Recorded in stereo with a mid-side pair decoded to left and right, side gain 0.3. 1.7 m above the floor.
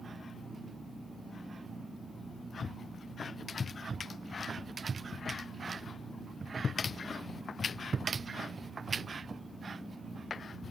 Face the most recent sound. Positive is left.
turn(degrees=-60)